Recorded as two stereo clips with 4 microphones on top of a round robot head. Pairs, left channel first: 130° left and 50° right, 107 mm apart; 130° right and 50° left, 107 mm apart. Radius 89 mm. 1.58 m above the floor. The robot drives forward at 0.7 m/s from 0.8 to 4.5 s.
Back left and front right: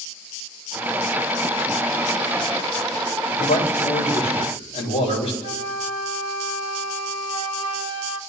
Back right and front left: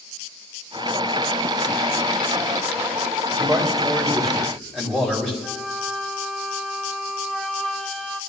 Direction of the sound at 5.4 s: 145° left.